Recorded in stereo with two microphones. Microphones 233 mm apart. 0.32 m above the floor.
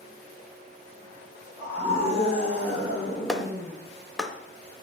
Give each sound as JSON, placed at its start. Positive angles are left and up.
{"t": 1.6, "sound": "a scream", "side_deg": 10, "distance_m": 2.5}
{"t": 3.3, "sound": "a clap", "side_deg": 0, "distance_m": 0.7}